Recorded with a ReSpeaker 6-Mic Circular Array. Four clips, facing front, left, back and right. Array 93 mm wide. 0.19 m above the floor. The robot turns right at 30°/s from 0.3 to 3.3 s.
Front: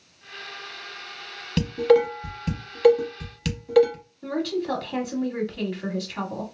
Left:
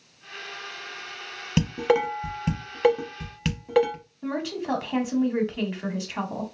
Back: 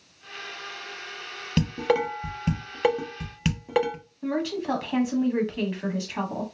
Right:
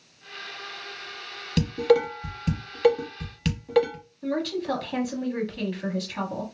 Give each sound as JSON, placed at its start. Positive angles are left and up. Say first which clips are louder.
{"t": 1.6, "sound": "dishes clattering", "louder": "right 2 dB, front 6 dB", "azimuth_deg": 100, "distance_m": 0.7}
{"t": 4.2, "sound": "a woman speaking", "louder": "right 2 dB, front 1 dB", "azimuth_deg": 125, "distance_m": 1.2}